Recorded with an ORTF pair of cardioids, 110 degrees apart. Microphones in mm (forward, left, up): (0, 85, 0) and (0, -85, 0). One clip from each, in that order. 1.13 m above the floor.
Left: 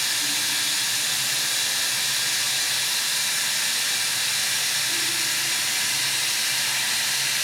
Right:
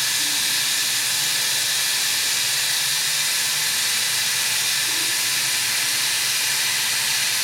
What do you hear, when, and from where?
0.0 s running water: 70° right, 2.5 m